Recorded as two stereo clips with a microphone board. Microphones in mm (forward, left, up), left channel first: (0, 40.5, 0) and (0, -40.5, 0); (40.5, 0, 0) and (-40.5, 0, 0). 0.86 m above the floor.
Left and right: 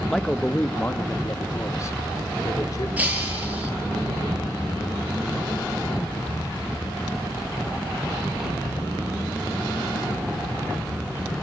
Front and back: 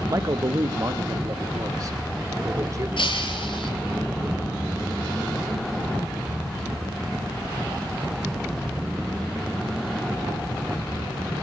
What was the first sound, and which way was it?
A man speaking, 175° left.